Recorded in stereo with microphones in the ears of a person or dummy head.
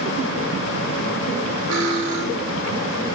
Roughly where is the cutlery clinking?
Right.